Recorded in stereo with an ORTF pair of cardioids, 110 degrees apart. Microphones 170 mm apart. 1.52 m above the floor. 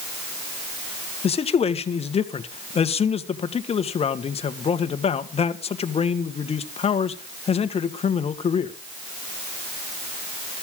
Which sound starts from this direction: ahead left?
A man speaking, at 1.2 s.